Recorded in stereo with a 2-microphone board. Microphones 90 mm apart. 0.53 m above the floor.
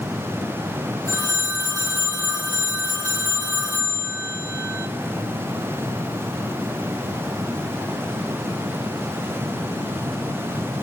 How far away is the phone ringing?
About 1.0 m.